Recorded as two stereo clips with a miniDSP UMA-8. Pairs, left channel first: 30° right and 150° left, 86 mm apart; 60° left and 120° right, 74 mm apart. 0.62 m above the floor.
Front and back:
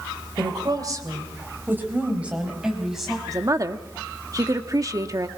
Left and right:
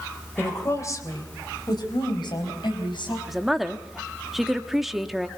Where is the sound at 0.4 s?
120° left, 3 m; by 3.2 s 60° left, 5 m.